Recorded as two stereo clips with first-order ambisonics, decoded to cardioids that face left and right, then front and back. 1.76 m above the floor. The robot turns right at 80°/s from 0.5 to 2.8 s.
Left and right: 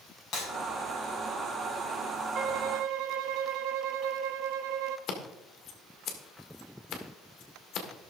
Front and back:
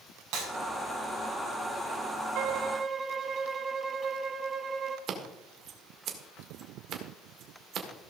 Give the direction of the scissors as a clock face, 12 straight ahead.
8 o'clock.